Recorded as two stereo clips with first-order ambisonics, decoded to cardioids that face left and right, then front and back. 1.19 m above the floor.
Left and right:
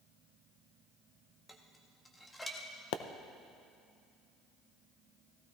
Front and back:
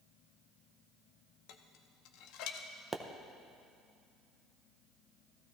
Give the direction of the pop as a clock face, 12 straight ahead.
9 o'clock.